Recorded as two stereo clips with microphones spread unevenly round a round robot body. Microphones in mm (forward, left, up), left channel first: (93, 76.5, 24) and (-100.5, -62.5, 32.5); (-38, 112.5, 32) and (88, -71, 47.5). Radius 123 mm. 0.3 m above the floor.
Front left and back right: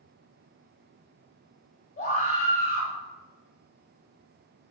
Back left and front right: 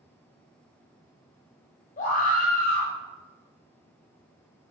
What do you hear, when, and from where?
2.0 s a scream: 85° left, 1.7 m